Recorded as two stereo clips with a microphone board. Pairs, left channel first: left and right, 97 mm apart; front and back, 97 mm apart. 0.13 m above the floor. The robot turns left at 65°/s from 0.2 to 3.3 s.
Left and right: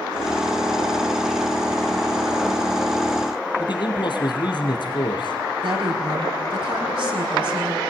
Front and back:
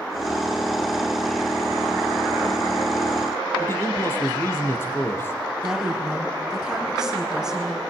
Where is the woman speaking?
95° right, 5.5 m.